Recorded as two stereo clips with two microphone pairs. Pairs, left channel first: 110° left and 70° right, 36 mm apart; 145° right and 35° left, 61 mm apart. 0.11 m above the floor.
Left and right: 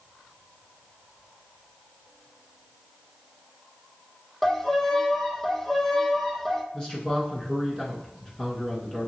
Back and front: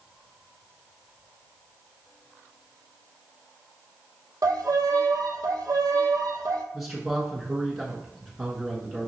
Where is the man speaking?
110° left, 1.2 m.